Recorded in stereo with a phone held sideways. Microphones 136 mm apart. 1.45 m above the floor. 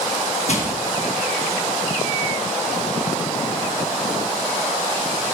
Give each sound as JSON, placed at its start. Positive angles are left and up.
{"t": 0.5, "sound": "crushing", "side_deg": 55, "distance_m": 1.4}